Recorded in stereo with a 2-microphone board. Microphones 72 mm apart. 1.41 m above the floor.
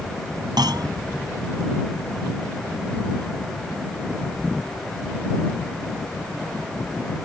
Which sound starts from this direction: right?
A clunk, at 0.6 s.